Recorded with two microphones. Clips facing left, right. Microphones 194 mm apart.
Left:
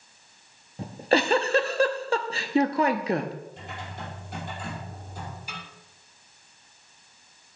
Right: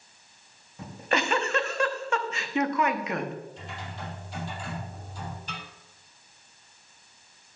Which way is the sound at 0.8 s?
35° left (ahead or behind).